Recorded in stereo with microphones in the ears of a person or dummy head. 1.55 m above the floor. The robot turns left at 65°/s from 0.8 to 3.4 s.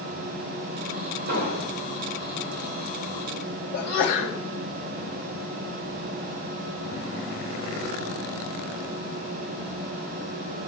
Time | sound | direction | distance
1.3 | an explosion | 115° right | 1.9 m
3.7 | a sneeze | 60° left (ahead or behind) | 3 m